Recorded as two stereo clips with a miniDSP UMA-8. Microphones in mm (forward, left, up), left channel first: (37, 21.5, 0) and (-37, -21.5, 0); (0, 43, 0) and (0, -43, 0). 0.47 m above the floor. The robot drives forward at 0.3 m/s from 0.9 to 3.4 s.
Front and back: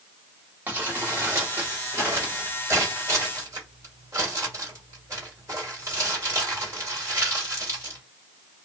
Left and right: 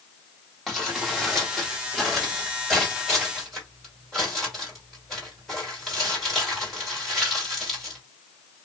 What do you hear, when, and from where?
0.7 s crumpling: straight behind, 1.4 m